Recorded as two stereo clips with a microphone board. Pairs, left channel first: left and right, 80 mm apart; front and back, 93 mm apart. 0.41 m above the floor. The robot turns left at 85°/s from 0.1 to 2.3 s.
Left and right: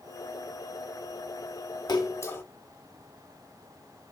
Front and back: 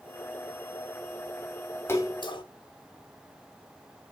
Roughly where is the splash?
Ahead left.